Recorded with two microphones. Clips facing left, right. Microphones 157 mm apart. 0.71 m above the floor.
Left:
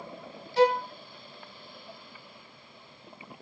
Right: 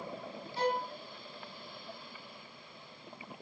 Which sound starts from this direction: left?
A violin, at 0.6 s.